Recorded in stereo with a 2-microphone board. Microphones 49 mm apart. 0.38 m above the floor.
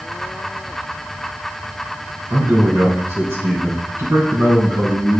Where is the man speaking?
60° right (ahead or behind), 3.5 m; by 5.2 s 75° right (ahead or behind), 5.5 m.